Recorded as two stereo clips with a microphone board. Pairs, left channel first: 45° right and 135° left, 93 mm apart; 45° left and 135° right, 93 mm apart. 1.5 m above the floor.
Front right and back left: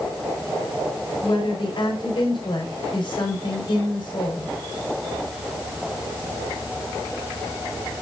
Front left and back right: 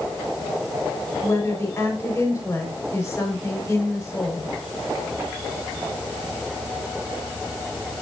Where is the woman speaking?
15° right, 5 m.